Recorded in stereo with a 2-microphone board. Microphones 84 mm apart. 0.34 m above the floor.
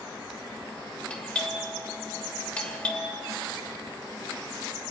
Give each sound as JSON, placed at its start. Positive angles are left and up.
{"t": 1.1, "sound": "a doorbell", "side_deg": 15, "distance_m": 1.4}